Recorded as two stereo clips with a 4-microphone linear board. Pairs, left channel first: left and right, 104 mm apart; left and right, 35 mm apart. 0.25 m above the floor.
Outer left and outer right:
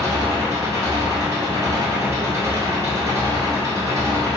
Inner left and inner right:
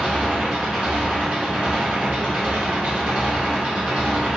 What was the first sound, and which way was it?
An engine running, 30° right (ahead or behind).